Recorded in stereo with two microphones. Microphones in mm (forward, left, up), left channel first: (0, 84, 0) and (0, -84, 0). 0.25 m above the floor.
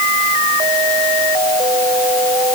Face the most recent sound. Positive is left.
No sound to turn to.